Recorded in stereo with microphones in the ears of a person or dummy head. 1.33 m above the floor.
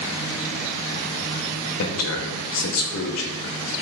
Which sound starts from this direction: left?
A man speaking, at 1.8 s.